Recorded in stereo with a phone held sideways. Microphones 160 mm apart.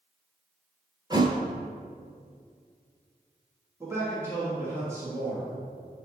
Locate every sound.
1.1 s a thud: 25° right (ahead or behind), 0.9 m
3.8 s a man speaking: 20° right (ahead or behind), 1.6 m